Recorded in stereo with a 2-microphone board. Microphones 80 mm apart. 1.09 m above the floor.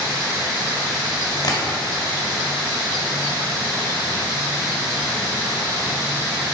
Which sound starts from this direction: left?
Tapping, at 1.4 s.